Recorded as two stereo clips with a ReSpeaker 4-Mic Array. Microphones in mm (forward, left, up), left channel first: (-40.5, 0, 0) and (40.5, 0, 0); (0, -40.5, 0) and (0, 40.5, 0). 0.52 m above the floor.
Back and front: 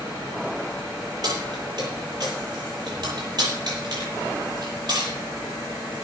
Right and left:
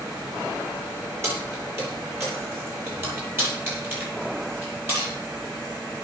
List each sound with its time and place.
1.2 s keys jangling: 35° left, 9 m; by 5.1 s 30° left, 11.5 m